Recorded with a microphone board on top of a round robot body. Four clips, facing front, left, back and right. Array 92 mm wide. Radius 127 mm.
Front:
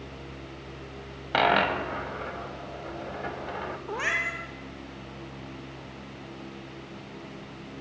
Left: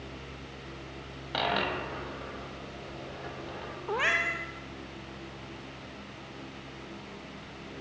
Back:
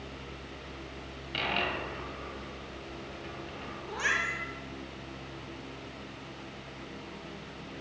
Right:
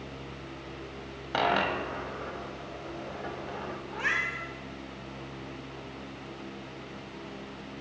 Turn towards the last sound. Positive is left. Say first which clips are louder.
# left 3 dB, front 1 dB
turn(degrees=60)